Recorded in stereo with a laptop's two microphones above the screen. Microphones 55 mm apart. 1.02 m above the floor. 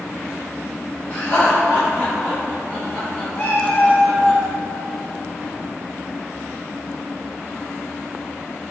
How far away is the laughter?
About 0.7 m.